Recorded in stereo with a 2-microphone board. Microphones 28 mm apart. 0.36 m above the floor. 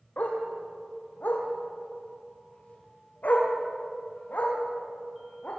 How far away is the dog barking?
About 5 m.